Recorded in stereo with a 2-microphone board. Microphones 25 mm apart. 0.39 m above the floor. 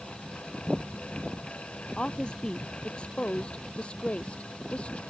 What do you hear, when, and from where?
2.0 s a woman speaking: 35° left (ahead or behind); by 5.0 s 50° left (ahead or behind)